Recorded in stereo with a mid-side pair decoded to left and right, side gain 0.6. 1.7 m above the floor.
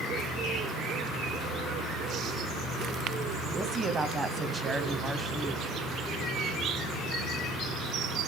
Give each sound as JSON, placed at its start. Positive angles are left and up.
{"t": 3.5, "sound": "a woman speaking", "azimuth_deg": -25, "distance_m": 0.9}